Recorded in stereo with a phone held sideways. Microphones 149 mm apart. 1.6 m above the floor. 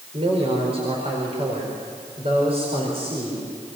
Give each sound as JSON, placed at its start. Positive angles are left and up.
{"t": 0.1, "sound": "a man speaking", "side_deg": -40, "distance_m": 5.0}